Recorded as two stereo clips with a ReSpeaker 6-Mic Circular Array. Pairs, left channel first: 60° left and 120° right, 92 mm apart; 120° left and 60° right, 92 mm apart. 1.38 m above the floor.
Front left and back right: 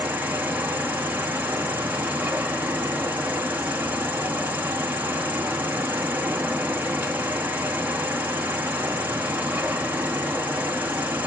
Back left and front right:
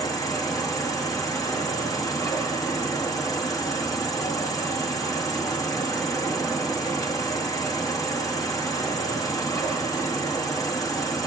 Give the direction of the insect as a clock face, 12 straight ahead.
6 o'clock.